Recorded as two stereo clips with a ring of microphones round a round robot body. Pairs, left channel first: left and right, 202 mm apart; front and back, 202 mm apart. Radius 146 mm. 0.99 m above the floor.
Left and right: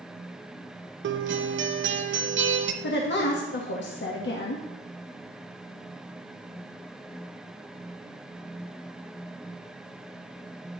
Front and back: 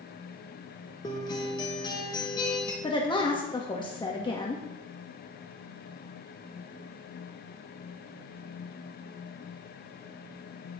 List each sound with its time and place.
1.0 s a guitar: 75° right, 0.8 m
2.8 s a woman speaking: 65° left, 1.4 m